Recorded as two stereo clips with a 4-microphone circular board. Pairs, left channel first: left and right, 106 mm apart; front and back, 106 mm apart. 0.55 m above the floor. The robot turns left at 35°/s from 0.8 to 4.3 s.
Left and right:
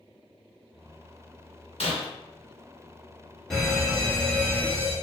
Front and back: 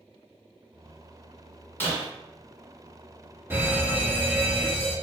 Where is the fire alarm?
165° left, 1.6 m; by 5.0 s 140° left, 1.6 m.